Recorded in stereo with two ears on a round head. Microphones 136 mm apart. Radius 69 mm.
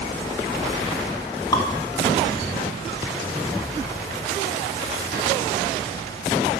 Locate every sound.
1.5 s dripping: 25° left (ahead or behind), 1.8 m